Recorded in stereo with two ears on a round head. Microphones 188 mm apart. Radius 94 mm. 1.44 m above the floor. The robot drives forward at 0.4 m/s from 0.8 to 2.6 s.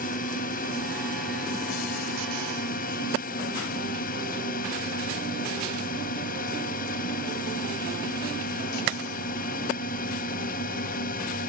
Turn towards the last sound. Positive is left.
turn(degrees=40)  # may be behind; listen again after turning